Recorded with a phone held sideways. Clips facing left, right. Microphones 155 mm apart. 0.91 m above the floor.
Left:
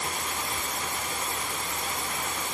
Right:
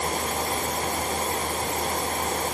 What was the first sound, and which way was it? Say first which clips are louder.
A fan: right 7 dB; 40° right (ahead or behind).